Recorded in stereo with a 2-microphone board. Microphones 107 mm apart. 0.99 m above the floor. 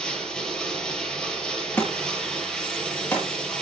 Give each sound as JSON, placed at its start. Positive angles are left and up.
{"t": 0.0, "sound": "running water", "side_deg": 10, "distance_m": 6.5}
{"t": 1.8, "sound": "a thud", "side_deg": 20, "distance_m": 8.5}